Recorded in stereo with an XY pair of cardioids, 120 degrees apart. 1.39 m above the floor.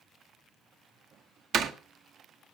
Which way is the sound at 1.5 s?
60° right.